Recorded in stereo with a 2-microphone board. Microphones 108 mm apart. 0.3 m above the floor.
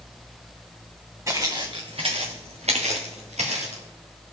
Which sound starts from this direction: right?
Footsteps, at 1.3 s.